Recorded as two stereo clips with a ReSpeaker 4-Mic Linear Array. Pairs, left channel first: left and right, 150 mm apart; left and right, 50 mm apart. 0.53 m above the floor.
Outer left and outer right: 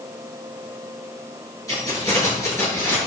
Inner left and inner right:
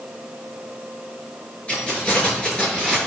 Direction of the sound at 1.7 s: 25° left (ahead or behind).